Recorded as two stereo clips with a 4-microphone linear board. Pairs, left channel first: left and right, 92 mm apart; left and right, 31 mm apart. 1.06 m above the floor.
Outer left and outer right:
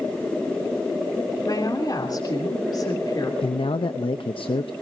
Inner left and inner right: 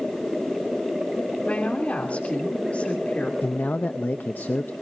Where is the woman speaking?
50° left (ahead or behind), 3 m.